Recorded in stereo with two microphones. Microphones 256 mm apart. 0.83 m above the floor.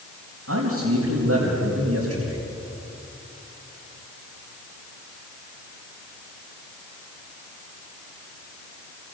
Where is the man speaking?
75° right (ahead or behind), 4.5 m.